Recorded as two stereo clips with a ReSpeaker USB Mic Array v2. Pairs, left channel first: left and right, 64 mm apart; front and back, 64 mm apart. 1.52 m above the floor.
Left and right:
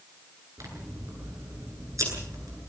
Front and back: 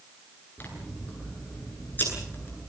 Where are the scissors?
60° right, 9.5 m.